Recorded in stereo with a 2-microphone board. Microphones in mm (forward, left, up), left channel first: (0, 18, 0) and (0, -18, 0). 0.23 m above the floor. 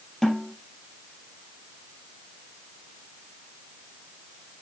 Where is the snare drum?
10° left (ahead or behind), 3 m.